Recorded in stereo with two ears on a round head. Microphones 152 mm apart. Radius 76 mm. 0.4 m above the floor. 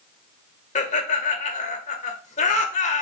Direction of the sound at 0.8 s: 45° left (ahead or behind).